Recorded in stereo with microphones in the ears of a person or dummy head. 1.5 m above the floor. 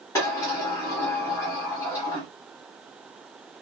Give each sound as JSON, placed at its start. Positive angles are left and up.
{"t": 0.1, "sound": "a sliding door", "side_deg": 15, "distance_m": 0.7}